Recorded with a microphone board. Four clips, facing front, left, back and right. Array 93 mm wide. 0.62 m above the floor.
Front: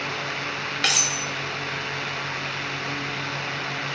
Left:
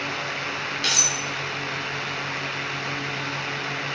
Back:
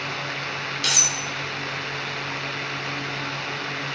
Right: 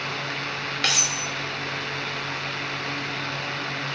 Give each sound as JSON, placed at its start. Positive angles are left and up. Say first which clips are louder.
{"t": 0.8, "sound": "cutlery clinking", "louder": "right 2 dB, front 4 dB", "azimuth_deg": -35, "distance_m": 1.4}